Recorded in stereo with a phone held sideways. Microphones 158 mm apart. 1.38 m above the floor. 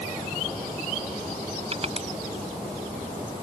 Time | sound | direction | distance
1.7 | crushing | 40° right (ahead or behind) | ?